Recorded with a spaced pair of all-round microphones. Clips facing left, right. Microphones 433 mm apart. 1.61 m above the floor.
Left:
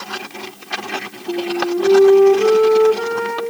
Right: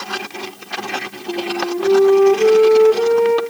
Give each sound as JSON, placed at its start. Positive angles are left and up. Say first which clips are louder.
{"t": 1.3, "sound": "a flute", "louder": "left 2 dB", "side_deg": 30, "distance_m": 2.0}